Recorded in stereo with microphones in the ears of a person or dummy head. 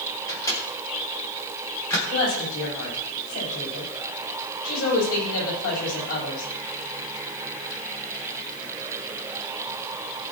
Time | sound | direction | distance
0.3 | a microwave | 20° left (ahead or behind) | 4 m
2.1 | a woman speaking | 80° left | 8.5 m